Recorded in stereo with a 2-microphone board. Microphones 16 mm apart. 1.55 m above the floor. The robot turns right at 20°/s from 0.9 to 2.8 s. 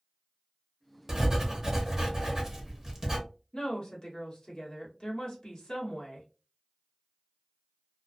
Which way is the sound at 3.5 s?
45° left (ahead or behind).